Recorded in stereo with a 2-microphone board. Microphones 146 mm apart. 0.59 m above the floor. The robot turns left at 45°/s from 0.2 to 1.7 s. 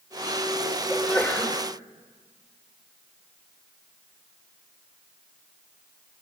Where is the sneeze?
175° right, 2.5 m; by 1.6 s 155° left, 2.5 m.